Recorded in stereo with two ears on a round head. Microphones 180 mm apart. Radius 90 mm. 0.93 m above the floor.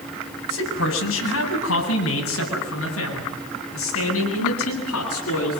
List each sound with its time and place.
0.5 s a man speaking: 80° left, 8 m; by 5.6 s 85° left, 13 m